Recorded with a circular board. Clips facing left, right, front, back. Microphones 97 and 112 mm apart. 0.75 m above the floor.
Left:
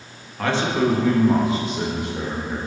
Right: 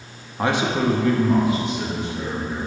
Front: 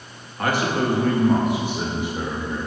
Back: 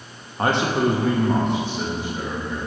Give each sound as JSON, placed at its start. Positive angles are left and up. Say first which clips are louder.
{"t": 0.4, "sound": "a man speaking", "louder": "even, back 2 dB", "azimuth_deg": -140, "distance_m": 0.7}